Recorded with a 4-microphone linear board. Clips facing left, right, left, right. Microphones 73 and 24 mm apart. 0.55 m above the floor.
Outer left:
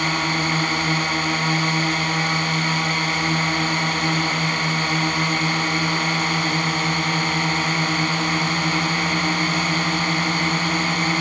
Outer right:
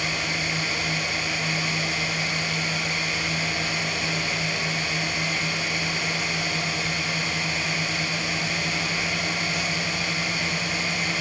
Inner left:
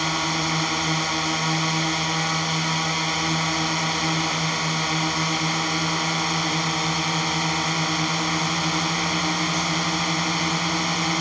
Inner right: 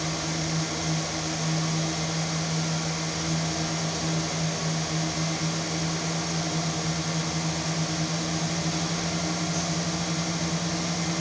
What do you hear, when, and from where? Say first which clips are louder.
0.0 s a drone: outer left 6 dB, inner left 6 dB; 50° left (ahead or behind)